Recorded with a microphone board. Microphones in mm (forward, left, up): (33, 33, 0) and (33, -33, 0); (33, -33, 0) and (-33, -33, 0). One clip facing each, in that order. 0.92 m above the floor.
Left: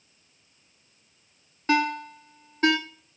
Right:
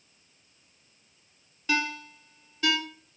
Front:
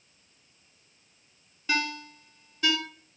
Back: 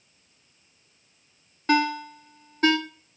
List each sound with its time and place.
1.7 s a ringtone: 135° left, 0.9 m